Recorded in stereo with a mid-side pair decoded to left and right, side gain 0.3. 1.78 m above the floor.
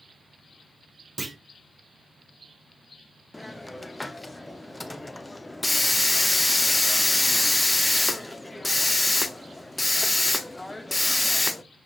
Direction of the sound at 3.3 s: 20° left.